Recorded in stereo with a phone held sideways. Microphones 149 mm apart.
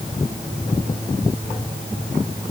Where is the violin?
No violin in this recording.